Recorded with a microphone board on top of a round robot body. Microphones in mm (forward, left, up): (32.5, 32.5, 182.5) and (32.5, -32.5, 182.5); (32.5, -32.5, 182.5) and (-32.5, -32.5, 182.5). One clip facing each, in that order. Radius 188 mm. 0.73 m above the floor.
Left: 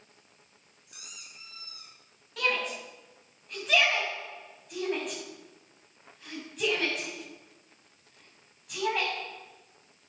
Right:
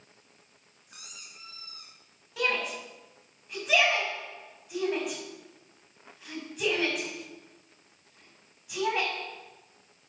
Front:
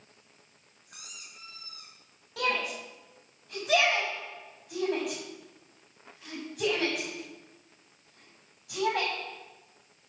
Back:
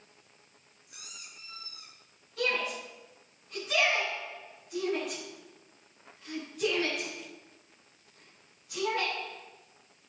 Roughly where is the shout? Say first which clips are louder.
Even, front 1 dB; ahead.